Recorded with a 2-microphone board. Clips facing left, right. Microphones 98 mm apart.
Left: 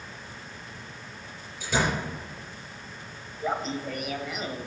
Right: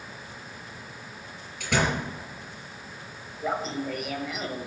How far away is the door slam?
About 4.5 m.